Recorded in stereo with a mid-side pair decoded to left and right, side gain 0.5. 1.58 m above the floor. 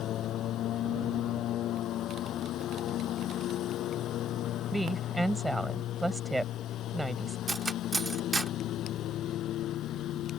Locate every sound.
0.0 s a lawn mower: 65° left
4.7 s a woman speaking: 5° right
7.5 s cutlery clinking: 20° right